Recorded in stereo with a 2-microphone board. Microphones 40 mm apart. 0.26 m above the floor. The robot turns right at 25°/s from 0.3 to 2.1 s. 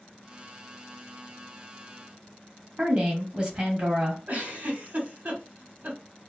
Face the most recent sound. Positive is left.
turn(degrees=-45)  # may be behind; listen again after turning